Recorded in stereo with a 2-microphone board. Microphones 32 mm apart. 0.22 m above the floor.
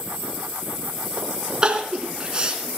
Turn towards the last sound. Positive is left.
turn(degrees=-25)  # may be behind; listen again after turning